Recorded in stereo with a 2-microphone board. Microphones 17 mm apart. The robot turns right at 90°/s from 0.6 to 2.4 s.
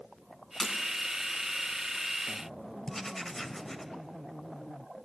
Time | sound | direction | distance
0.6 | breaking glass | 15° right (ahead or behind) | 1.3 m
2.9 | writing | 25° left (ahead or behind) | 0.6 m